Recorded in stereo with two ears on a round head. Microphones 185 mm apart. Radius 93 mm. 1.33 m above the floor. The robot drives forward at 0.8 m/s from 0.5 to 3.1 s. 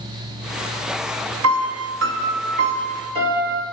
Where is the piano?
70° right (ahead or behind), 0.7 m; by 3.6 s 30° right (ahead or behind), 1.3 m.